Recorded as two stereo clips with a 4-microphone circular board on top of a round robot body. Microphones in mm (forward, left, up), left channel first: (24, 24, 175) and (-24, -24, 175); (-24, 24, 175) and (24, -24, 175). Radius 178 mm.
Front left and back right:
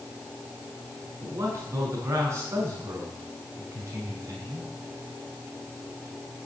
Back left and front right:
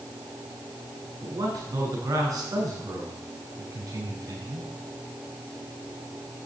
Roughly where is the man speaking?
Right.